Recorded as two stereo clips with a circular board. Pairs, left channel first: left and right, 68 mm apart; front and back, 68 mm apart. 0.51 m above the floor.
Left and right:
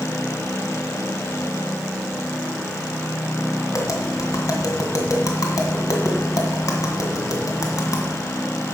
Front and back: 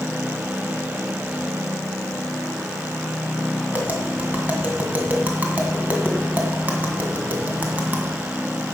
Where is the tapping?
115° left, 1.9 m.